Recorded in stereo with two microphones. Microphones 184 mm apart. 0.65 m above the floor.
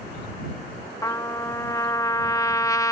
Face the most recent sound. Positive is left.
turn(degrees=15)  # may be behind; listen again after turning